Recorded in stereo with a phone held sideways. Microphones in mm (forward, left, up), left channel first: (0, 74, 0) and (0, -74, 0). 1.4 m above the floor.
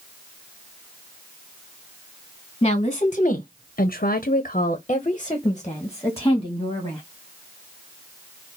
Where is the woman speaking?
40° left (ahead or behind), 1.2 m; by 7.0 s 15° left (ahead or behind), 2 m.